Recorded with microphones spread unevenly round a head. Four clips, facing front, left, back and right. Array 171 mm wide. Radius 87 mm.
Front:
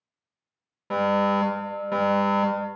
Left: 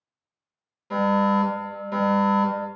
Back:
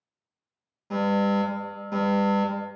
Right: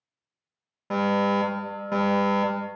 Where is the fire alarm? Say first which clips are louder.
Left 2 dB, front 2 dB; 50° right, 1.1 m.